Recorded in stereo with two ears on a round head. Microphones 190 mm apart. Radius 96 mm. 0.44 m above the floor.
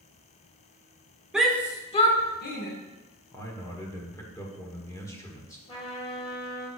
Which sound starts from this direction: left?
A trumpet, at 5.7 s.